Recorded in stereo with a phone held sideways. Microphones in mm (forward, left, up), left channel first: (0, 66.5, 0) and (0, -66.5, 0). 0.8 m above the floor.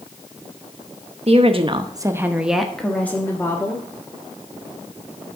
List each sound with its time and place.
1.3 s a woman speaking: 50° right (ahead or behind), 1.0 m; by 3.9 s 25° left (ahead or behind), 1.8 m